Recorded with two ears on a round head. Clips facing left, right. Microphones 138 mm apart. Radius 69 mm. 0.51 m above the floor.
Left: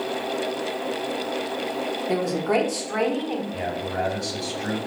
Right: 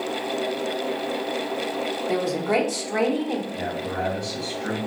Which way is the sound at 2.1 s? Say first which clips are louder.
Left 1 dB; 5° left (ahead or behind).